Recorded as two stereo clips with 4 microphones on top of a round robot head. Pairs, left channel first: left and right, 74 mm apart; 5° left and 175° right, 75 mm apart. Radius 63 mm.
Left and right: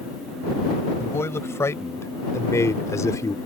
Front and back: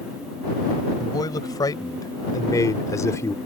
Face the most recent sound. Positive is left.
turn(degrees=50)